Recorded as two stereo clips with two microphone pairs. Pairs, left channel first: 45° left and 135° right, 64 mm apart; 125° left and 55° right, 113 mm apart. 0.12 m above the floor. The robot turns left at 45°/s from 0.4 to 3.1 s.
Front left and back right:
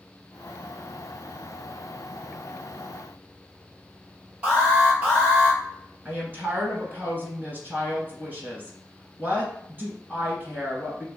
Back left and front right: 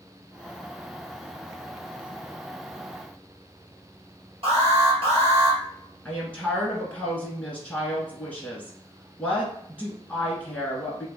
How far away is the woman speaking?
About 1.4 m.